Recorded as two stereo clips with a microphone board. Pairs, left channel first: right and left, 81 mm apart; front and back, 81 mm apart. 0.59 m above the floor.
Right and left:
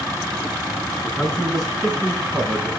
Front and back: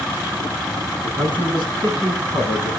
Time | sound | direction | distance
1.0 | a man speaking | 165° right | 4 m